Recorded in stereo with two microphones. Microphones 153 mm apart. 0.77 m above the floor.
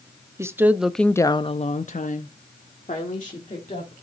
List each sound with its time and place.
0.4 s a woman speaking: 20° right (ahead or behind), 0.9 m; by 3.9 s 50° left (ahead or behind), 2 m